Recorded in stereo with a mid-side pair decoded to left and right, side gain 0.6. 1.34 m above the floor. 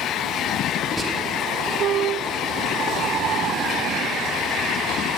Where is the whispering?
20° right, 2.5 m.